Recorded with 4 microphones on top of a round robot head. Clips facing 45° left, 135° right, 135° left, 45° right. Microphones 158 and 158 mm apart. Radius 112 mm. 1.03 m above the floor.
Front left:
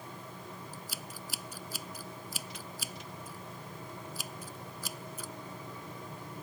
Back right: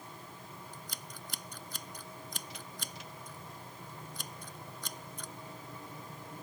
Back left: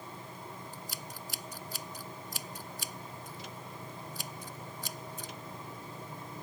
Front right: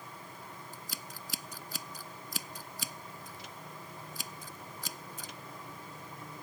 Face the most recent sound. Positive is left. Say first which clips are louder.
# front left 3 dB, back left 2 dB
turn(degrees=-40)